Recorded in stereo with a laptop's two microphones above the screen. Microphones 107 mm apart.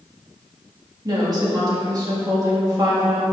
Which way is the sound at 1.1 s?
40° right (ahead or behind).